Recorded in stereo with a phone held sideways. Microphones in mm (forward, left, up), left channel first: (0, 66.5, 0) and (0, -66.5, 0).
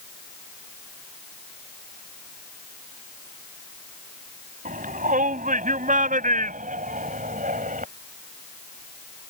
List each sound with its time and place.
4.7 s a shout: 90° right; by 7.9 s 85° right